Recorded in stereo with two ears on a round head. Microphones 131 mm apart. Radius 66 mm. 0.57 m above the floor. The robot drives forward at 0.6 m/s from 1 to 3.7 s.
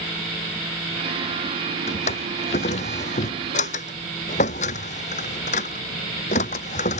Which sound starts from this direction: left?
A drawer, at 1.9 s.